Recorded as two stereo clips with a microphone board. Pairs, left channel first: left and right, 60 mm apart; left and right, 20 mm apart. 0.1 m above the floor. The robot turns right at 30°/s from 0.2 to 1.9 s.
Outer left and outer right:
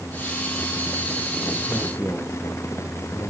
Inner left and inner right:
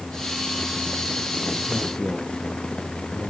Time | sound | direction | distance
1.7 | a man speaking | 35° left (ahead or behind) | 4 m